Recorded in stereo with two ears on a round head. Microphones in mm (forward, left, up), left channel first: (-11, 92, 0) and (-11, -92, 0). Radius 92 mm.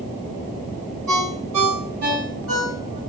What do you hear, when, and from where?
1.1 s a ringtone: 85° right, 4.5 m